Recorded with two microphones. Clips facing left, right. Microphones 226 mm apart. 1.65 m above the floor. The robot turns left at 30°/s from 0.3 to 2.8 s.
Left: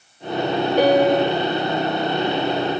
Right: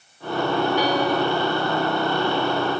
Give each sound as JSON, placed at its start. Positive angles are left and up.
{"t": 0.8, "sound": "a piano", "side_deg": 55, "distance_m": 0.8}